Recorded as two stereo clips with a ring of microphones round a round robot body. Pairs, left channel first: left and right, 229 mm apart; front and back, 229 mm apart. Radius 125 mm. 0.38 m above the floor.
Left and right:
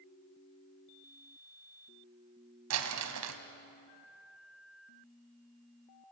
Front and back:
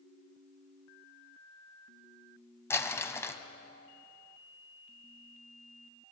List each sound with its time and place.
2.7 s crumpling: 80° right, 1.8 m